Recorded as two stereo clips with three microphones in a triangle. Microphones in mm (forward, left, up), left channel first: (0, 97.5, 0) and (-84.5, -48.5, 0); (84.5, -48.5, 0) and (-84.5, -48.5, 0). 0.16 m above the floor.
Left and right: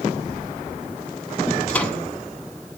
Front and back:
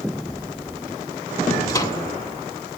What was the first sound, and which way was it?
A microwave, 5° right.